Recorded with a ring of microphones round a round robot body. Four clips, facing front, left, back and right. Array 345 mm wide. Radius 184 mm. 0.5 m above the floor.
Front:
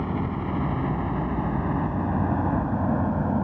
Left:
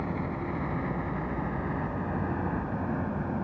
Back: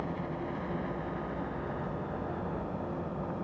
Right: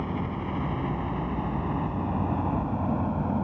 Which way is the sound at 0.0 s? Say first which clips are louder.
Right 1 dB, front 8 dB; 10° right.